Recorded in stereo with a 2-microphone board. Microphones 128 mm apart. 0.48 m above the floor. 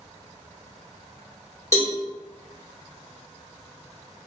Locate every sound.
1.7 s a cowbell: 25° left (ahead or behind), 1.2 m